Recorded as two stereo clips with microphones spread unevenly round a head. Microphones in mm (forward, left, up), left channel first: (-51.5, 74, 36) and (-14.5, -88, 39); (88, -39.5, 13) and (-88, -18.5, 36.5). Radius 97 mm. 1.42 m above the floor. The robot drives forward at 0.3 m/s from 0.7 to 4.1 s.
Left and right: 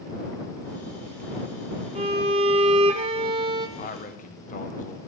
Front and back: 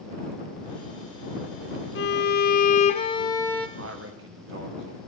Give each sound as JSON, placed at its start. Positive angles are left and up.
{"t": 1.9, "sound": "a violin", "azimuth_deg": -20, "distance_m": 0.7}
{"t": 3.8, "sound": "a man speaking", "azimuth_deg": 140, "distance_m": 1.1}